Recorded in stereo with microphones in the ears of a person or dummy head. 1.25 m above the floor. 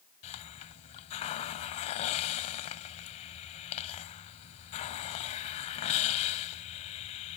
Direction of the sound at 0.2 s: 30° left (ahead or behind).